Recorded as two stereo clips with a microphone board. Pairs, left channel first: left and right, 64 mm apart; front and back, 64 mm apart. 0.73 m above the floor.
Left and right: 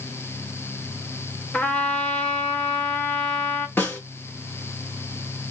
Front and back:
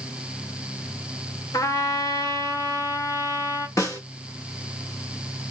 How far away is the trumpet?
About 0.8 m.